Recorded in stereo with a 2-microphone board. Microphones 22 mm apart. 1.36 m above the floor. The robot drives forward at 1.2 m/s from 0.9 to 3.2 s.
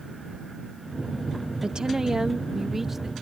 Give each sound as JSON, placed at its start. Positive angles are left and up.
{"t": 1.6, "sound": "a woman speaking", "side_deg": -45}